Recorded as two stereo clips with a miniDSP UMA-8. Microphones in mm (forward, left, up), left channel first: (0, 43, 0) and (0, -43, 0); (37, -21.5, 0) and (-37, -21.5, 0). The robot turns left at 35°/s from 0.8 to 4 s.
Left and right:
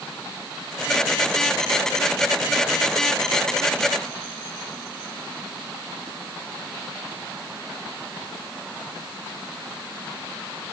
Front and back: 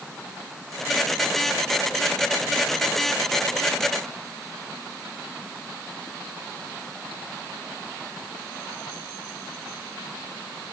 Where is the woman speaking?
No woman speaking in this recording.